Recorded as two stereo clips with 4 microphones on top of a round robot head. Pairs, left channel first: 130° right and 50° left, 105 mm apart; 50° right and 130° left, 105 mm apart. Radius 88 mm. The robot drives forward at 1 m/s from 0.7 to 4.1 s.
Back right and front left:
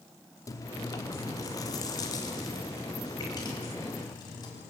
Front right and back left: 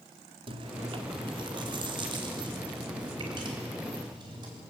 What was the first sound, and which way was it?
Chewing, 170° left.